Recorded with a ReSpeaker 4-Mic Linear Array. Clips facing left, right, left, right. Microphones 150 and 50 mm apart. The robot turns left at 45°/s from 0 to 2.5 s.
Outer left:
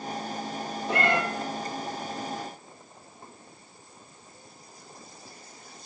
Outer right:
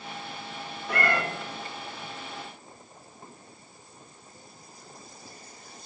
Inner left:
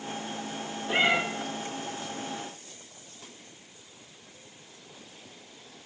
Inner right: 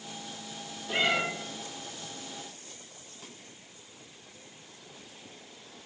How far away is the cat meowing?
About 1.3 m.